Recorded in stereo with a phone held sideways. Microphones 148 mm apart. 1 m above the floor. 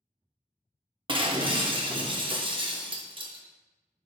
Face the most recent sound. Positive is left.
turn(degrees=-35)  # may be behind; listen again after turning